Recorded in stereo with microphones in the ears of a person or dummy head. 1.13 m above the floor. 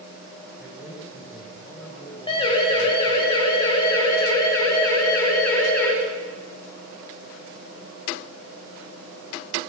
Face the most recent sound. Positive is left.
turn(degrees=10)  # may be behind; listen again after turning